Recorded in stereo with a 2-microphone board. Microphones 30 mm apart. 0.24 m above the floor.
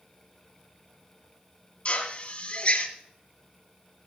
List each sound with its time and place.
1.9 s a drill: 40° left (ahead or behind), 1.5 m